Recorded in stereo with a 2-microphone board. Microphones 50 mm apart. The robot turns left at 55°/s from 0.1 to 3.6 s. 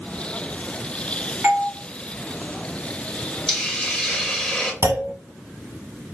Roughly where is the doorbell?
Right.